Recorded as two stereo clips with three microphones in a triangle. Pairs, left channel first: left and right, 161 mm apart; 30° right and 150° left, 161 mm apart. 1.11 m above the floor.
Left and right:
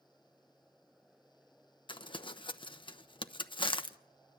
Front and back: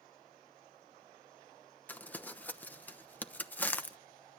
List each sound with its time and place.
1.9 s crumpling: 45° left, 1.0 m